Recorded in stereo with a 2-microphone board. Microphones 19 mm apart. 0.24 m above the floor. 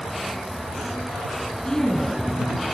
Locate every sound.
1.6 s a woman speaking: 35° left (ahead or behind), 2.5 m